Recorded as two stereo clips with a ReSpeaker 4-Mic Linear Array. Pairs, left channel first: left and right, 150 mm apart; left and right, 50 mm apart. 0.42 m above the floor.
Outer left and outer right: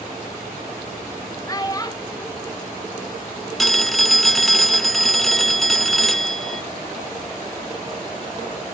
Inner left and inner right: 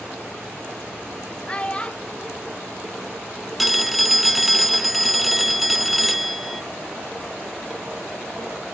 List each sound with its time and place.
1.5 s a child speaking: 25° left (ahead or behind), 0.6 m
3.6 s a phone ringing: centre (ahead or behind), 0.6 m